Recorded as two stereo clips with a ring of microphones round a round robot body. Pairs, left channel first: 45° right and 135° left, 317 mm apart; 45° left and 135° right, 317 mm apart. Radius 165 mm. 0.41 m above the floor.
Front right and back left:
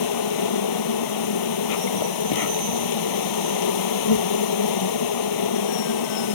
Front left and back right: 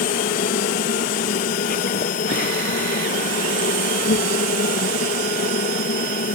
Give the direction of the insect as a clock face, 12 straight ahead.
1 o'clock.